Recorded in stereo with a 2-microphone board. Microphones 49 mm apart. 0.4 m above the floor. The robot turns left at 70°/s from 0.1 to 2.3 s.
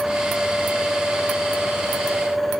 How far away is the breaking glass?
I don't hear breaking glass.